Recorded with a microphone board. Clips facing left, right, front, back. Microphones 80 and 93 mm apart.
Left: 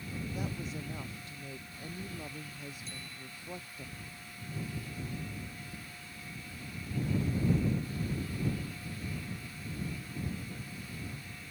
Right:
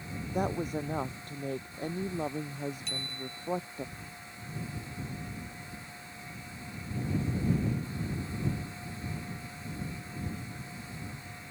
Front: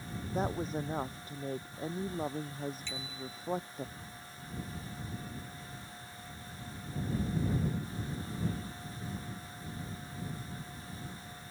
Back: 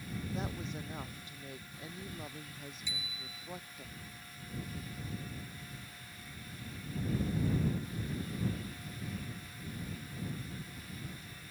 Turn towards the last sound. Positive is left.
turn(degrees=-100)